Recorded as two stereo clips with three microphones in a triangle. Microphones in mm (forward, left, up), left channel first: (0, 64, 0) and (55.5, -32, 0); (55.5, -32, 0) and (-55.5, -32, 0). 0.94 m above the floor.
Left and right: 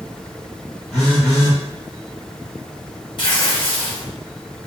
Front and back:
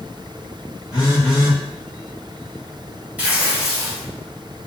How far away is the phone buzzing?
About 1.6 m.